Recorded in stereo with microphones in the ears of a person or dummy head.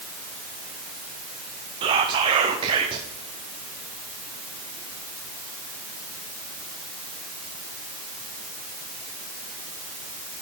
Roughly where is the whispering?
Right.